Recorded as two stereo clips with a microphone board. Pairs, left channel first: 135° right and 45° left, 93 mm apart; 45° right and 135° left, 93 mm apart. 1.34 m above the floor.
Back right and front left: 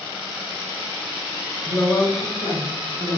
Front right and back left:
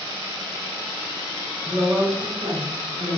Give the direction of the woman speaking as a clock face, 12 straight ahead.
5 o'clock.